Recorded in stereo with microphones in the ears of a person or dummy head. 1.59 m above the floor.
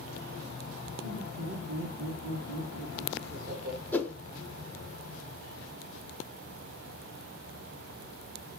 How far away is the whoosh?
About 0.8 m.